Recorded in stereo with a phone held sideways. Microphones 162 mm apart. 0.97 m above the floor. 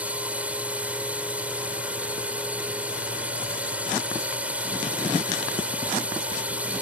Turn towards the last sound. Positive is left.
turn(degrees=-10)  # may be behind; listen again after turning